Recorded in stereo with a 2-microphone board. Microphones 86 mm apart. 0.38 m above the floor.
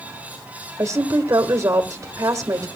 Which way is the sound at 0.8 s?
35° right (ahead or behind).